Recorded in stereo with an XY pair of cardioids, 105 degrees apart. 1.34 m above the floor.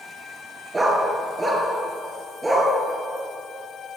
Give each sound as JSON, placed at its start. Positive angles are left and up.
{"t": 0.7, "sound": "a dog barking", "azimuth_deg": -20, "distance_m": 5.5}